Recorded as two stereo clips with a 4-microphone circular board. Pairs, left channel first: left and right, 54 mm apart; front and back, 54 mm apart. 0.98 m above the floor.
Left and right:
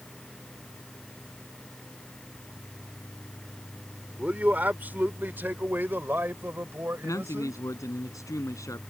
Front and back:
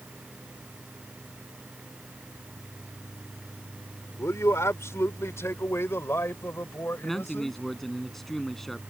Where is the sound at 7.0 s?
85° left.